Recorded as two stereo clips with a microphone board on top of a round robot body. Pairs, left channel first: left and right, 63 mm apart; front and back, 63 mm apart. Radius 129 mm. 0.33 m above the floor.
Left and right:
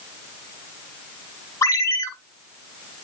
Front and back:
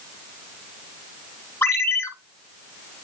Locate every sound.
1.6 s a ringtone: 50° left, 2.5 m